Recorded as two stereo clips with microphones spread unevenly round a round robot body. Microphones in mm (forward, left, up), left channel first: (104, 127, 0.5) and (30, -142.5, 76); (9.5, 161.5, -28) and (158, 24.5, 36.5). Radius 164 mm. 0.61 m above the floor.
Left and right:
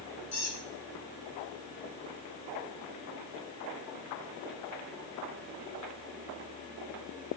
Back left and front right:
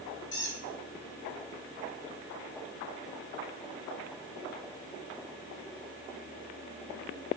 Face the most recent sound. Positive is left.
turn(degrees=115)